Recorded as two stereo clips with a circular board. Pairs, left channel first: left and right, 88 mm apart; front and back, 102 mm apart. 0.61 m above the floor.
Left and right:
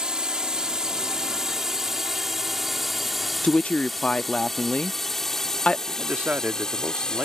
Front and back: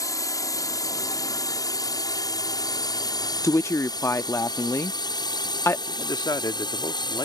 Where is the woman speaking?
25° left.